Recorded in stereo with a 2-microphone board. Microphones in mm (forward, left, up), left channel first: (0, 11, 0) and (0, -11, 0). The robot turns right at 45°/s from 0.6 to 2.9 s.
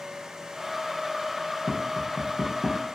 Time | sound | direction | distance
1.7 | tapping | 5° right (ahead or behind) | 1.0 m